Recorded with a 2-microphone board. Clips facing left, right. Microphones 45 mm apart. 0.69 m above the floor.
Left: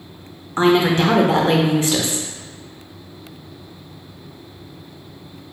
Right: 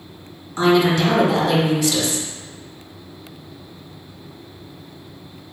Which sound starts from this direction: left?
A woman speaking, at 0.6 s.